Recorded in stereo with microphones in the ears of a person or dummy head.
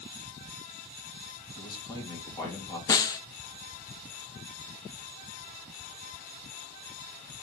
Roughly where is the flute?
I don't hear a flute.